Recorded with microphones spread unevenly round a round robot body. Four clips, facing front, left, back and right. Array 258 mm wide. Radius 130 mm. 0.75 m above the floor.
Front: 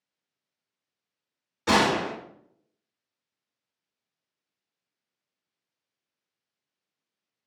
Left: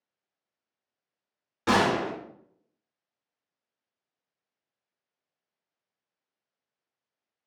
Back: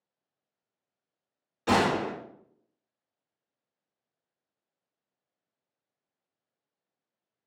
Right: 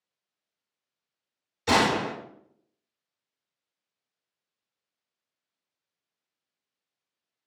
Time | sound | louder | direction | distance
1.7 | a gunshot | even, front 2 dB | 90° left | 1.7 m